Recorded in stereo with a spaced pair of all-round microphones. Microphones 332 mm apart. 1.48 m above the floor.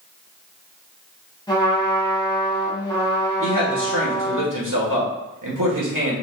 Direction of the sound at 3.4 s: 70° right (ahead or behind).